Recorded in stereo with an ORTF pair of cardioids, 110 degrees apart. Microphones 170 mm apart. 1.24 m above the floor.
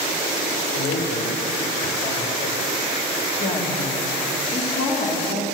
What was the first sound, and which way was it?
A man speaking, 45° left.